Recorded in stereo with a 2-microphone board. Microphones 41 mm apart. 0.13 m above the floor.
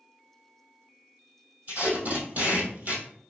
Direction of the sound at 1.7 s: 55° right (ahead or behind).